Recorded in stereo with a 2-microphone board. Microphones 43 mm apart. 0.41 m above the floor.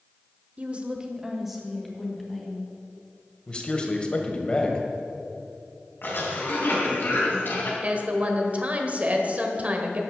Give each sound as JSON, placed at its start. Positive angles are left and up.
{"t": 0.6, "sound": "a woman speaking", "side_deg": -35, "distance_m": 1.1}
{"t": 3.5, "sound": "a man speaking", "side_deg": 25, "distance_m": 1.6}
{"t": 6.0, "sound": "a cough", "side_deg": 55, "distance_m": 3.5}
{"t": 7.8, "sound": "a woman speaking", "side_deg": -35, "distance_m": 1.3}